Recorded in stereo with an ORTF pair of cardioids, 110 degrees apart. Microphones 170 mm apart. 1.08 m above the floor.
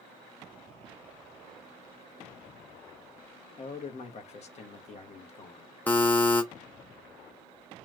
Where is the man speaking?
45° left, 1.1 m.